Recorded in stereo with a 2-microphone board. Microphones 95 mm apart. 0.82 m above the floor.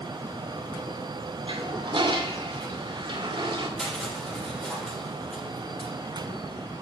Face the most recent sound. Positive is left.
turn(degrees=5)  # may be behind; listen again after turning